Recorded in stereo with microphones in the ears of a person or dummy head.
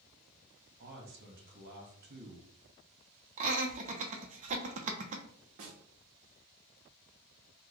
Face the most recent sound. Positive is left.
turn(degrees=-45)  # may be behind; listen again after turning